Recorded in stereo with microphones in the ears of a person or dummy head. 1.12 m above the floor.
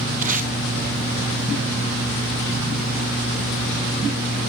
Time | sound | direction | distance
0.2 | tape being pulled | 35° right (ahead or behind) | 0.9 m